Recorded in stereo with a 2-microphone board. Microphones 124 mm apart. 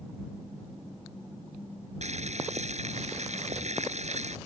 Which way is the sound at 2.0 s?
65° right (ahead or behind).